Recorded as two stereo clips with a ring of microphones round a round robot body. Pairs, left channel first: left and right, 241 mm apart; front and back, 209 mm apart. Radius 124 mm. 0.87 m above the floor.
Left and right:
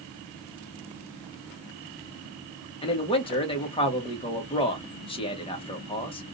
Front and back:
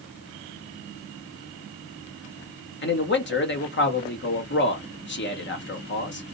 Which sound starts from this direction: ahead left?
A man speaking, at 2.8 s.